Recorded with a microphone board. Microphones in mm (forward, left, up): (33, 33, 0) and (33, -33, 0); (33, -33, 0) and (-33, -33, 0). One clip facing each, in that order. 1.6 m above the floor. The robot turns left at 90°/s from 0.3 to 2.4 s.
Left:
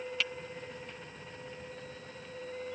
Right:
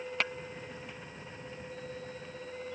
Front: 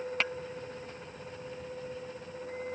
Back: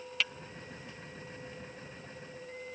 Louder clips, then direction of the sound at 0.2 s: Right 4 dB, front 2 dB; 50° right.